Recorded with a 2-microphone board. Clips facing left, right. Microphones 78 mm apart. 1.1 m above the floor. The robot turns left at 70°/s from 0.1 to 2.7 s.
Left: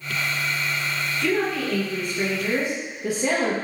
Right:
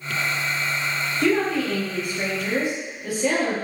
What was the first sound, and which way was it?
A woman speaking, 110° right.